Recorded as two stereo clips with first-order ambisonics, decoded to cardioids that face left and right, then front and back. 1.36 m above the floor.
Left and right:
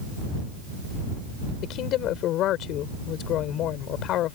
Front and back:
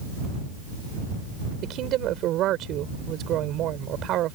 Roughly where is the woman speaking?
Behind left.